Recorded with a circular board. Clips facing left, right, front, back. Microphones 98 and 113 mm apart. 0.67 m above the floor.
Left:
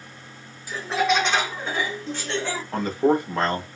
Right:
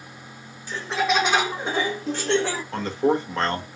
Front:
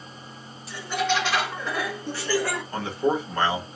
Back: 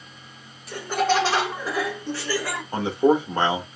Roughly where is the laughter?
Behind.